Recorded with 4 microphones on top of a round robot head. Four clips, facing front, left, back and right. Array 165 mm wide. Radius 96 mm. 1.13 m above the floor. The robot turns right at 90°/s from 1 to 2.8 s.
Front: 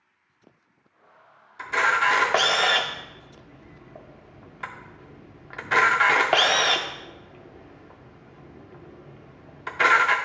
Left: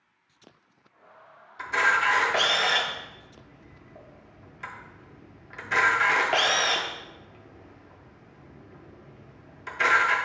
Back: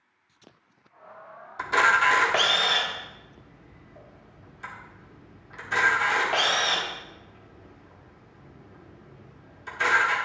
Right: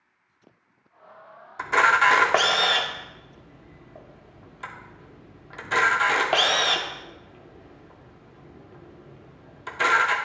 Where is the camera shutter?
130° right, 0.8 m; by 10.2 s 20° right, 0.8 m.